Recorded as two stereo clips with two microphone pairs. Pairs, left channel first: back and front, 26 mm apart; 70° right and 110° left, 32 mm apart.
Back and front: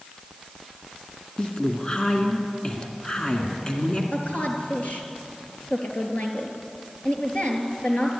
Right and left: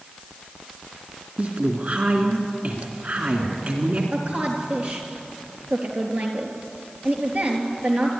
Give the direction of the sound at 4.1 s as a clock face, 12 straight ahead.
7 o'clock.